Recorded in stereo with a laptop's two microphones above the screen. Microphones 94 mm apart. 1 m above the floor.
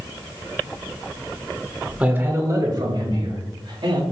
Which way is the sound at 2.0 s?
15° right (ahead or behind).